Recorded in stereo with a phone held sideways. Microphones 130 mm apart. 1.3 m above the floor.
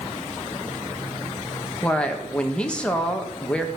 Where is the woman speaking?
10° left (ahead or behind), 1.5 m.